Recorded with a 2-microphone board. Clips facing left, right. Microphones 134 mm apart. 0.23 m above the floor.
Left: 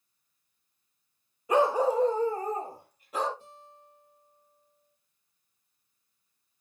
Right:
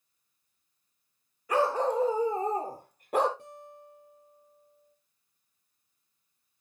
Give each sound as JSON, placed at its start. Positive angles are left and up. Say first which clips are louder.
{"t": 1.5, "sound": "a dog barking", "louder": "left 3 dB", "side_deg": 20, "distance_m": 1.3}
{"t": 3.4, "sound": "a guitar", "louder": "right 5 dB", "side_deg": -75, "distance_m": 4.0}